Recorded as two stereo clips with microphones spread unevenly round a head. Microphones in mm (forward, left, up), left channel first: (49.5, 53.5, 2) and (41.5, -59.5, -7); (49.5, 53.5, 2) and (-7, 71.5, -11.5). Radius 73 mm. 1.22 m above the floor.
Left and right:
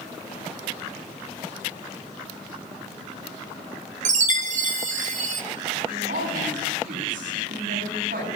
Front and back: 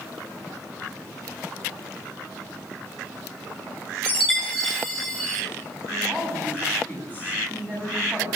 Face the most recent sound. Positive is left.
turn(degrees=-120)